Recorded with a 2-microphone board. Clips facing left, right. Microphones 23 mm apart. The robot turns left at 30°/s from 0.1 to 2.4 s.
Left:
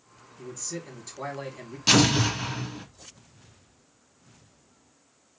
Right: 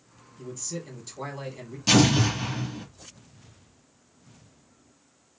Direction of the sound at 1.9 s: 25° left (ahead or behind).